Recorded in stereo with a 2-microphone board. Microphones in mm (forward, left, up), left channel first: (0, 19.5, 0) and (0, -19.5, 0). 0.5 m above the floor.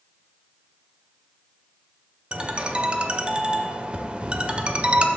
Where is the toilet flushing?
No toilet flushing in this recording.